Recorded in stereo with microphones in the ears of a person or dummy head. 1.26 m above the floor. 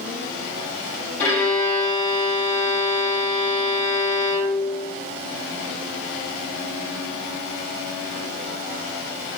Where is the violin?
10° left (ahead or behind), 1.9 m.